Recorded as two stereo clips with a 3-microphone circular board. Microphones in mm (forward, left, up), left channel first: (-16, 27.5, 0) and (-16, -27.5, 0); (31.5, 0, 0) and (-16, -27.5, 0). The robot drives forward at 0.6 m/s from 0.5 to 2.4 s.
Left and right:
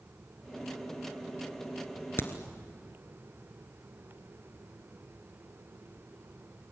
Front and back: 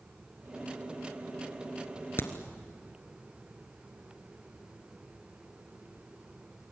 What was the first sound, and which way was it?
A crack, 60° left.